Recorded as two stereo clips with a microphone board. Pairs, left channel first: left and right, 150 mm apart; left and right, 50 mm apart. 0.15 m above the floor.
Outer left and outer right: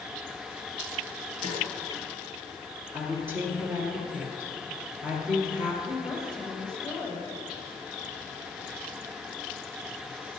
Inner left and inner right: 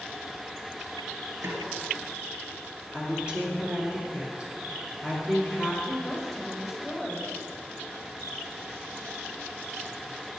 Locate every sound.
1.4 s a snare drum: 60° right (ahead or behind), 2 m
2.9 s a woman speaking: 15° right (ahead or behind), 3 m
5.8 s a woman speaking: 5° left (ahead or behind), 4 m